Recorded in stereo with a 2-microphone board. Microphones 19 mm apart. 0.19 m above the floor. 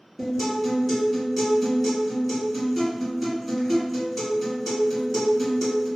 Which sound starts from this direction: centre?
A guitar, at 0.2 s.